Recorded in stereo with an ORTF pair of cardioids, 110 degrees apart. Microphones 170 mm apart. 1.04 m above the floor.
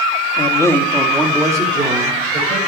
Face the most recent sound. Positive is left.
turn(degrees=-40)